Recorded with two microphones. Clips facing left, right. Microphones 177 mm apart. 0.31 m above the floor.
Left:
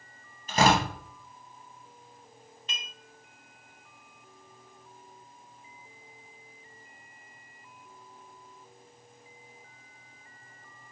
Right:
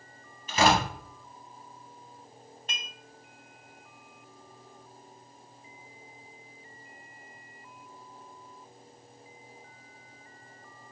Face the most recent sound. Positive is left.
turn(degrees=-50)  # may be behind; listen again after turning